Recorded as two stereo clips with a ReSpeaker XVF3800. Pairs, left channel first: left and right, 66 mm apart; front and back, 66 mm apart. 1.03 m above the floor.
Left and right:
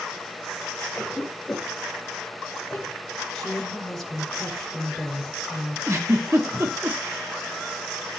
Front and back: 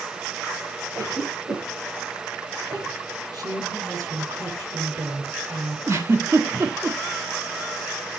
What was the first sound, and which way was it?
A cough, 175° left.